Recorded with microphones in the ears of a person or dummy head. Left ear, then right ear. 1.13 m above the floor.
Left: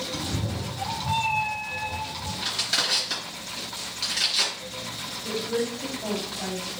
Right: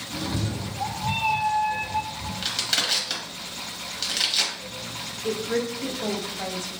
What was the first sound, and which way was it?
A cat meowing, 45° right (ahead or behind).